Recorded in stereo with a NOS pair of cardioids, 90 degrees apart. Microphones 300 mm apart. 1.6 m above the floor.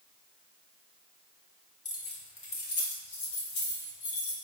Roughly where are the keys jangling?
Ahead left.